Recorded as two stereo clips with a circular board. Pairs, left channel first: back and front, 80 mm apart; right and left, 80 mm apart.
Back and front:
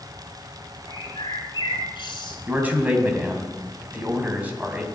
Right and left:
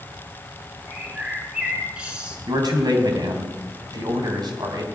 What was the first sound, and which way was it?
A bird, 170° left.